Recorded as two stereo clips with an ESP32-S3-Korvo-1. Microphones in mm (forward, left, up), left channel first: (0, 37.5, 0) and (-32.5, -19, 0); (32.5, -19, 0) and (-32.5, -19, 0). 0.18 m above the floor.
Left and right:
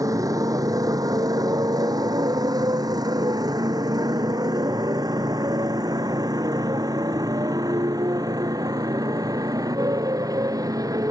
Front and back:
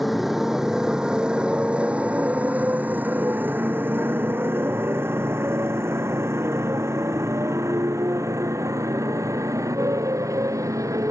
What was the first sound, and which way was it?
A motorcycle, 90° right.